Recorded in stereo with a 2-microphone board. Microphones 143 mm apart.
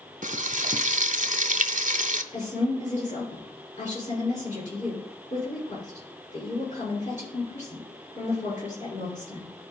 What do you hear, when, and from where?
0.2 s frying: 60° right (ahead or behind), 0.6 m
2.3 s a woman speaking: 55° left (ahead or behind), 6 m